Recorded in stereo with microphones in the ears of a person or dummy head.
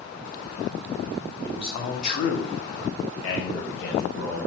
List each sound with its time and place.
1.4 s a man speaking: 25° left (ahead or behind), 1.0 m; by 4.5 s 55° left (ahead or behind), 1.5 m